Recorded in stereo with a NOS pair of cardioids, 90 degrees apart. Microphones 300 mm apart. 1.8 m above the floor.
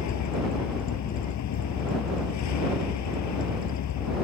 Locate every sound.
0.0 s a vehicle: 65° left